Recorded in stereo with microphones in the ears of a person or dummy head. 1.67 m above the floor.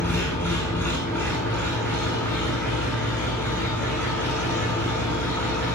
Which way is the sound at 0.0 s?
15° left (ahead or behind).